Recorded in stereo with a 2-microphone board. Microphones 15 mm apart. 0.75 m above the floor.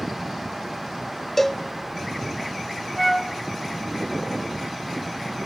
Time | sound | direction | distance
1.4 | a cowbell | 5° left (ahead or behind) | 0.9 m
3.0 | a flute | 15° left (ahead or behind) | 2 m